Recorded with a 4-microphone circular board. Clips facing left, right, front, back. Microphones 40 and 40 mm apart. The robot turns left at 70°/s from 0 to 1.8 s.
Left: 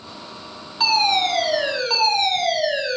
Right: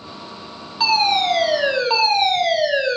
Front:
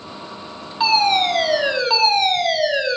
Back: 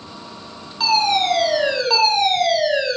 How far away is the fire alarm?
About 2.5 m.